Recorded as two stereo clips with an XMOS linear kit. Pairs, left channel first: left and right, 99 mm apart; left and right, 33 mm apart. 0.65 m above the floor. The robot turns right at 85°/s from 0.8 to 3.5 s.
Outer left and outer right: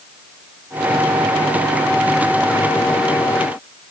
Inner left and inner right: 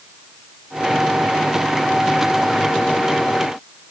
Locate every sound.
Only background noise.